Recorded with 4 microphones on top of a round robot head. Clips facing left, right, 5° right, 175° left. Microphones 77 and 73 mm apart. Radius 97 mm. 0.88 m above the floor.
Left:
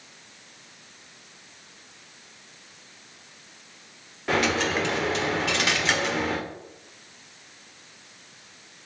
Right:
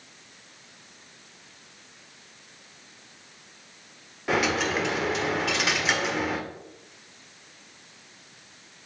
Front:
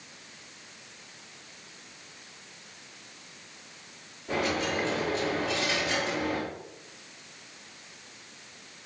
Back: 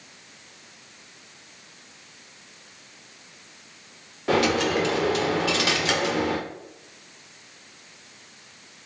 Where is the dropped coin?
175° right, 1.3 m.